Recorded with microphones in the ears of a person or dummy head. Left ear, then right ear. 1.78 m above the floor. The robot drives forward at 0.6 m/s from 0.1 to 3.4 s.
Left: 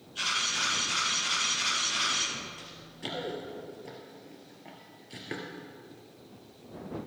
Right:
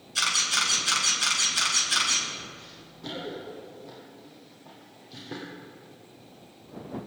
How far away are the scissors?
I don't hear scissors.